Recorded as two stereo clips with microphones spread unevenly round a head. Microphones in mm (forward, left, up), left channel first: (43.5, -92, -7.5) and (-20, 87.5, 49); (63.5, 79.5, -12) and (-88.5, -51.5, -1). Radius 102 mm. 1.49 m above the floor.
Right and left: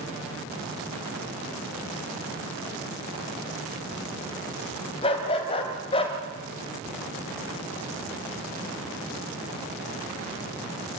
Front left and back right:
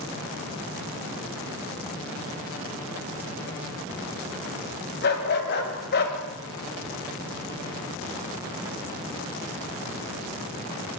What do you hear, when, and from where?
5.0 s a dog barking: straight ahead, 3.5 m